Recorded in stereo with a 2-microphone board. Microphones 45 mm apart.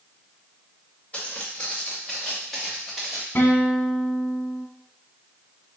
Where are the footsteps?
30° left (ahead or behind), 2 m; by 3.2 s 5° right (ahead or behind), 2 m.